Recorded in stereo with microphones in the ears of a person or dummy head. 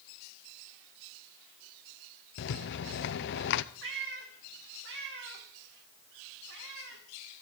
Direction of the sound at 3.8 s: 70° right (ahead or behind).